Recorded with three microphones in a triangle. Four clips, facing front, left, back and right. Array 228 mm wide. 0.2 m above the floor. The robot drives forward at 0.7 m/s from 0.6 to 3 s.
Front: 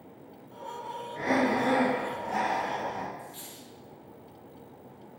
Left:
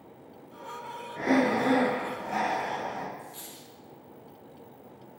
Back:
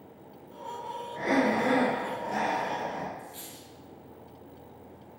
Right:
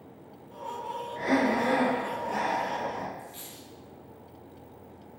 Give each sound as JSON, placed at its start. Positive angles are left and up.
{"t": 1.2, "sound": "breathing", "azimuth_deg": 85, "distance_m": 0.8}
{"t": 3.2, "sound": "a dropped coin", "azimuth_deg": -145, "distance_m": 1.6}